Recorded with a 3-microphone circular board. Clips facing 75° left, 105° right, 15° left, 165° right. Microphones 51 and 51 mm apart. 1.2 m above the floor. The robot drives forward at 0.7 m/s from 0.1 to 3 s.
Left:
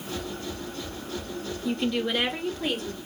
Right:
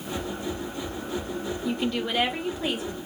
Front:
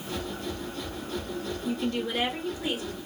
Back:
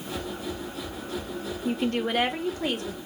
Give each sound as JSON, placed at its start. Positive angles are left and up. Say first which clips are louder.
{"t": 1.6, "sound": "a woman speaking", "louder": "left 2 dB, back 4 dB", "azimuth_deg": 155, "distance_m": 0.6}